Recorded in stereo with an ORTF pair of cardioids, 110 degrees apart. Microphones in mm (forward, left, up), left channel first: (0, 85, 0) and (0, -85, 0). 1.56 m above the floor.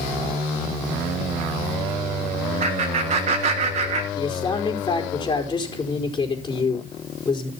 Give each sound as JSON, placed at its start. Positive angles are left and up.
{"t": 2.6, "sound": "laughter", "azimuth_deg": -50, "distance_m": 2.5}
{"t": 4.2, "sound": "a man speaking", "azimuth_deg": 25, "distance_m": 4.5}